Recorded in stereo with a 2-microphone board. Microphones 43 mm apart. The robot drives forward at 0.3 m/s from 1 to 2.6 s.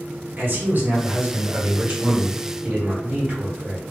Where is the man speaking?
45° right (ahead or behind), 1.1 m; by 3.8 s 35° right (ahead or behind), 1.4 m.